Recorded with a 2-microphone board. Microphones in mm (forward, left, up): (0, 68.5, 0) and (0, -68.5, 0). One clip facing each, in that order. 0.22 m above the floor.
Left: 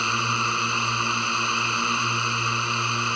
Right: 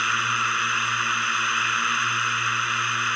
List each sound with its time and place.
0.0 s a drone: 25° left (ahead or behind)